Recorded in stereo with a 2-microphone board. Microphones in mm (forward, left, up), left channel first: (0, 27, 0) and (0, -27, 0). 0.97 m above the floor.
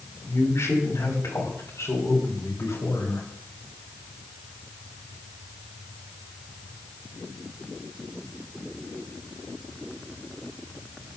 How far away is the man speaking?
About 5.5 m.